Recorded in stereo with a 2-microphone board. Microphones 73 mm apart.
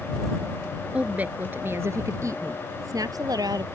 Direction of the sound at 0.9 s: 15° right (ahead or behind).